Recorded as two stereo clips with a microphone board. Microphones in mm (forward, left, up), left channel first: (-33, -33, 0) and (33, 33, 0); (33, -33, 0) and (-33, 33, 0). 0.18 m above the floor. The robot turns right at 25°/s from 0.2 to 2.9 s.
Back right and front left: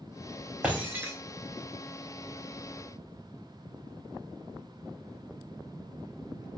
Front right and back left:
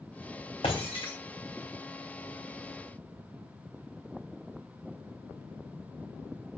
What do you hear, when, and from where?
0.6 s breaking glass: 30° right, 3.5 m; by 1.1 s 20° right, 3.5 m